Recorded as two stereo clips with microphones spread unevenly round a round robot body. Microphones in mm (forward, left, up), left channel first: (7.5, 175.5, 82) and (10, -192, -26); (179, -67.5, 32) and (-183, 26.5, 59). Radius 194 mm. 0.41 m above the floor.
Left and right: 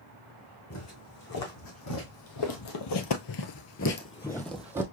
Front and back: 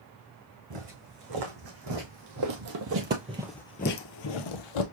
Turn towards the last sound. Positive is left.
turn(degrees=0)